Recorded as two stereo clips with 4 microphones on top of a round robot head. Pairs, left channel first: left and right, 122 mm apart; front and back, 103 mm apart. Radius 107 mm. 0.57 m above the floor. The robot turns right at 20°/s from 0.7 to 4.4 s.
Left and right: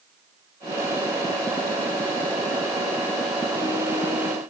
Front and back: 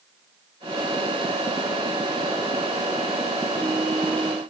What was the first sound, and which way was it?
Only background noise.